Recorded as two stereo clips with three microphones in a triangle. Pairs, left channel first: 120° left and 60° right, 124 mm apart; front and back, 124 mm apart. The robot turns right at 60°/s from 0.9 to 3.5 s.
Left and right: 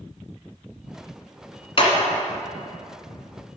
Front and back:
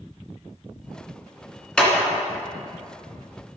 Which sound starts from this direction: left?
A clap, at 1.8 s.